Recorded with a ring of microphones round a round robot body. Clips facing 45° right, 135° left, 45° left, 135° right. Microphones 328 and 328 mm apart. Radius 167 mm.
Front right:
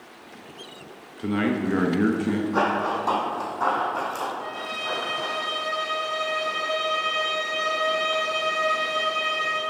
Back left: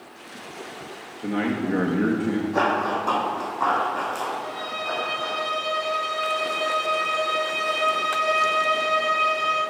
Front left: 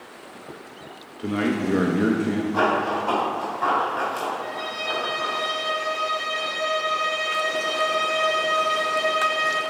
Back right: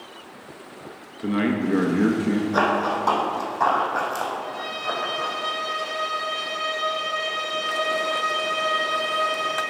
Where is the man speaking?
60° right, 0.6 m.